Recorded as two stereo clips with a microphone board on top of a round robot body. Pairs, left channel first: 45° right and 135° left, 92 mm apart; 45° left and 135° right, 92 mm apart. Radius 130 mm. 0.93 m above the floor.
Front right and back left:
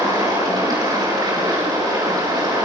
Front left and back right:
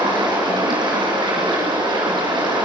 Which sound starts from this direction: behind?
Running water, at 0.0 s.